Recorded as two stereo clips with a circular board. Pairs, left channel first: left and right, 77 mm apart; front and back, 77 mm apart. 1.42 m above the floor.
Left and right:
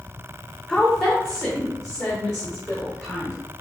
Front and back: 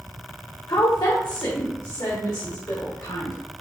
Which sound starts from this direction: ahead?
A woman speaking, at 0.7 s.